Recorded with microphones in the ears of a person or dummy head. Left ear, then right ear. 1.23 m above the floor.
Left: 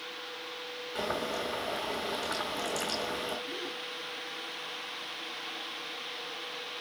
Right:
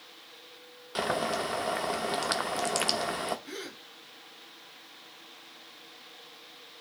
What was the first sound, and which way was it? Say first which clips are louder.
Boiling: right 4 dB; 50° right (ahead or behind).